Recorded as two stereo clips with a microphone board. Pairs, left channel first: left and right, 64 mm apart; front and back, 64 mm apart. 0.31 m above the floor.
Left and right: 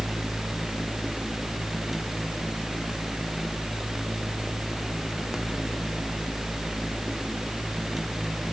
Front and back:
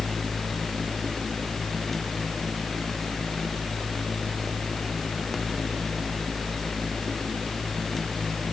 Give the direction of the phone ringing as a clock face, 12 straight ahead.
No phone ringing in this recording.